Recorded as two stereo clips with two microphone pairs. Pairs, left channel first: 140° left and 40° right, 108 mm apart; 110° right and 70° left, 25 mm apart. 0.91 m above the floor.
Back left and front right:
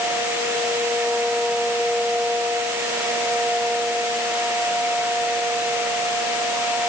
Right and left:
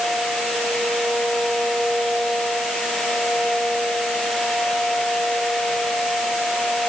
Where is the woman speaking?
No woman speaking in this recording.